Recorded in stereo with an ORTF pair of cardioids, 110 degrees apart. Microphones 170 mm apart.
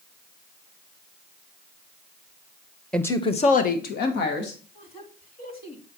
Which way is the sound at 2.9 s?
5° left.